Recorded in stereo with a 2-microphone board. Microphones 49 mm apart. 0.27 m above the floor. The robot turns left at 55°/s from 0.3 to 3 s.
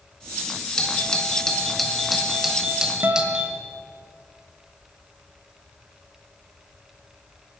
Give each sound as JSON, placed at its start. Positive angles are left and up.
{"t": 0.8, "sound": "a doorbell", "side_deg": 15, "distance_m": 1.3}
{"t": 3.0, "sound": "a guitar", "side_deg": -45, "distance_m": 0.8}